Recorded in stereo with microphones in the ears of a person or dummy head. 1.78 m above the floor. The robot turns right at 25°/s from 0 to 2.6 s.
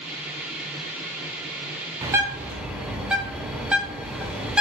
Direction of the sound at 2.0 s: 20° right (ahead or behind).